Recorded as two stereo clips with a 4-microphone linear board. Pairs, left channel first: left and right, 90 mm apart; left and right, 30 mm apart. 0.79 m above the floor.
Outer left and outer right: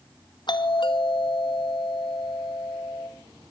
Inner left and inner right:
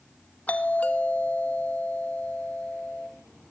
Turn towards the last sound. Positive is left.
turn(degrees=60)  # may be behind; listen again after turning